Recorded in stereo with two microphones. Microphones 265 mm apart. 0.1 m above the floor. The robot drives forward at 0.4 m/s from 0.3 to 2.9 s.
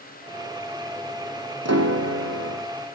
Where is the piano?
70° right (ahead or behind), 2.5 m; by 2.6 s 60° right (ahead or behind), 2.5 m.